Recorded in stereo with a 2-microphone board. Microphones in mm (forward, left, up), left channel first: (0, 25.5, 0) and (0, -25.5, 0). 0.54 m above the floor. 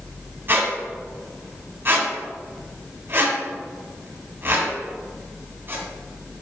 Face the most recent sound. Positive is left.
turn(degrees=-45)  # may be behind; listen again after turning